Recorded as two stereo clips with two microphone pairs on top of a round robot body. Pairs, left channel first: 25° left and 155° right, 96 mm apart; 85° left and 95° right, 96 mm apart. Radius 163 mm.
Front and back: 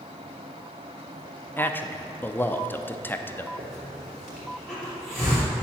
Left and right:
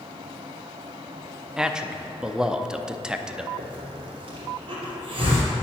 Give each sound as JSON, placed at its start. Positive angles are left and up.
{"t": 1.6, "sound": "a man speaking", "azimuth_deg": -20, "distance_m": 0.7}
{"t": 3.6, "sound": "a hiss", "azimuth_deg": -70, "distance_m": 3.0}